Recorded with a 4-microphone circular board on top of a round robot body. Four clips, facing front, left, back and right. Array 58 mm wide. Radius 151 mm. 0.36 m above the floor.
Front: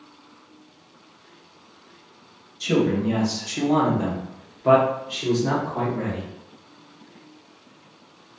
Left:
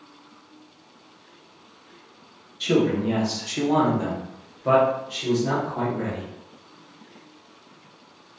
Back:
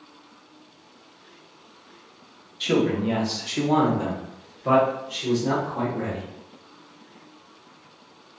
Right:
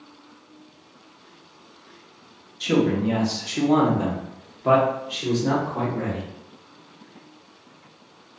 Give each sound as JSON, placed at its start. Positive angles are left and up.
{"t": 2.6, "sound": "a man speaking", "azimuth_deg": 175, "distance_m": 1.1}